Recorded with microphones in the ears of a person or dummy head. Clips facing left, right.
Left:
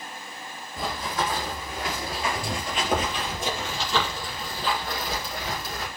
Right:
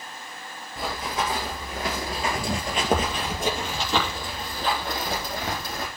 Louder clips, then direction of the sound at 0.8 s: Even; 5° right (ahead or behind).